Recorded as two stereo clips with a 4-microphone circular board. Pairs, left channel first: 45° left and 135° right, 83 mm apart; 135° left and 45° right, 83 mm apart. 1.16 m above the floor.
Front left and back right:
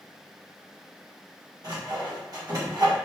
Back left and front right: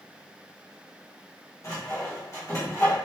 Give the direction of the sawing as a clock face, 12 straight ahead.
6 o'clock.